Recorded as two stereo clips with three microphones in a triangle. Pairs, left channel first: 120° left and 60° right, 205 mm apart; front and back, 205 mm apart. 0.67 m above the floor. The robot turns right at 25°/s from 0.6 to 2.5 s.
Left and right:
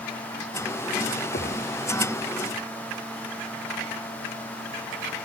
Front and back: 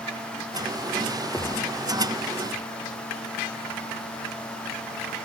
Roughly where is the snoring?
I don't hear snoring.